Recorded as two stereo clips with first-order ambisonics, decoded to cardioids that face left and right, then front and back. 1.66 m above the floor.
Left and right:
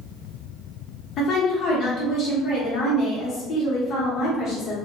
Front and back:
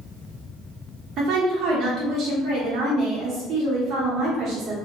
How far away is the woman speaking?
About 0.8 m.